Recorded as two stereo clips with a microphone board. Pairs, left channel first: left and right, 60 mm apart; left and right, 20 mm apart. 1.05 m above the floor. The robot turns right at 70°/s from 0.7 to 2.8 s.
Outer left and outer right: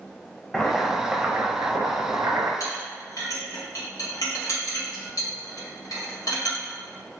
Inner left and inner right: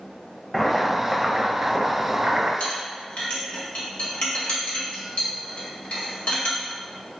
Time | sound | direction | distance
0.5 | boiling | 175° left | 0.6 m
2.6 | a clink | 85° left | 1.3 m